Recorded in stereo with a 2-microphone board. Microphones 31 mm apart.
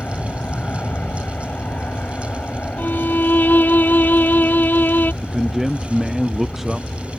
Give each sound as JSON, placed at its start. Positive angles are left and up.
{"t": 0.0, "sound": "an aircraft", "side_deg": 65}
{"t": 2.8, "sound": "a violin", "side_deg": 75}
{"t": 5.2, "sound": "a man speaking", "side_deg": -10}